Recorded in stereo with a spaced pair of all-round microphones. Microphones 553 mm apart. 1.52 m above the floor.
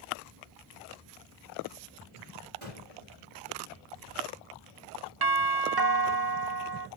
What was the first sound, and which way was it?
A gunshot, 70° right (ahead or behind).